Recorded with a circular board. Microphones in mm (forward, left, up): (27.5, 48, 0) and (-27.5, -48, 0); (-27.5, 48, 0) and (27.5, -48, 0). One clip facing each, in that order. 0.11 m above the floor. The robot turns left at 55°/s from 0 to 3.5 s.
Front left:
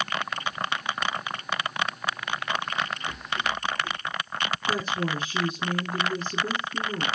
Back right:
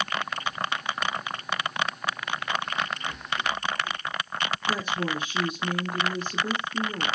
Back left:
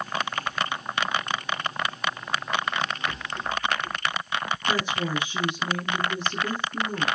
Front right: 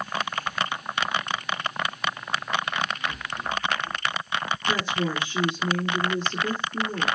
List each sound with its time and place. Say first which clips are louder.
3.1 s a rattle: even, even; 120° left, 1.1 m; by 4.0 s 100° left, 1.1 m
4.7 s a woman speaking: front left 1 dB, front right 1 dB; 60° left, 1.6 m